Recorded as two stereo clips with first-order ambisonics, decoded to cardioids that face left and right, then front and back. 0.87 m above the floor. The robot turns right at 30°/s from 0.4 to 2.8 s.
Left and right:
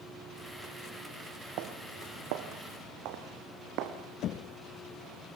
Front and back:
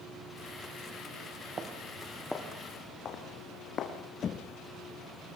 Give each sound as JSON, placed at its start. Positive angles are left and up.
{"t": 1.6, "sound": "footsteps", "azimuth_deg": -115, "distance_m": 2.5}
{"t": 4.2, "sound": "knocking", "azimuth_deg": 55, "distance_m": 0.9}